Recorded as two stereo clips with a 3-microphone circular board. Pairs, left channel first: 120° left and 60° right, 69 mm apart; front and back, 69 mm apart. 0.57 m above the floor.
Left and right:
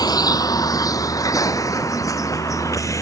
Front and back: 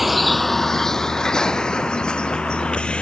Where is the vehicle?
90° left; by 3.0 s 75° left.